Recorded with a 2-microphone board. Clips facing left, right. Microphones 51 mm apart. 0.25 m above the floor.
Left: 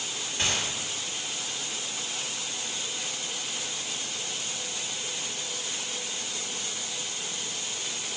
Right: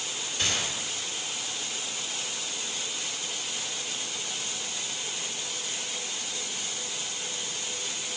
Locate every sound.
0.4 s a gunshot: 40° left (ahead or behind), 2.0 m